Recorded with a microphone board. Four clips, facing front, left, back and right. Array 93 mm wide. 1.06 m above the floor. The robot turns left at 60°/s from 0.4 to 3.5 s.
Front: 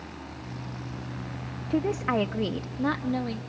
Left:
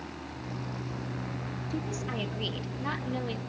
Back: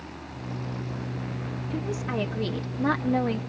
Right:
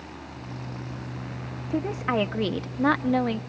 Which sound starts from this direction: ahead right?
A woman speaking, at 1.7 s.